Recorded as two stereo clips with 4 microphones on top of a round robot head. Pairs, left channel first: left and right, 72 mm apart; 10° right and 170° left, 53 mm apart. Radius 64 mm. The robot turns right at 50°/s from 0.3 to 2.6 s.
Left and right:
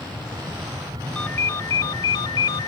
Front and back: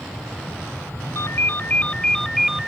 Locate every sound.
0.0 s an aircraft: 95° right; by 2.7 s 20° left
1.1 s a ringtone: 20° left; by 2.7 s 90° left